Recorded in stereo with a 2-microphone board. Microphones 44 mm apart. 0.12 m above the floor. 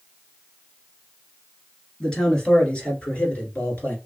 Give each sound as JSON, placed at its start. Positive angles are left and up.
{"t": 2.0, "sound": "a man speaking", "side_deg": 15, "distance_m": 1.8}